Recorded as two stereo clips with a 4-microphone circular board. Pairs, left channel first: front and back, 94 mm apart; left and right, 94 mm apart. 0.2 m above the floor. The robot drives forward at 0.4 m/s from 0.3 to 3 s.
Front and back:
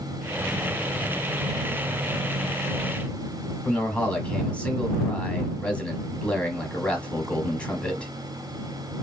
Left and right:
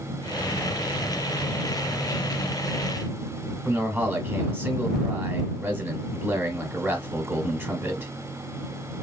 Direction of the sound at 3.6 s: 60° right.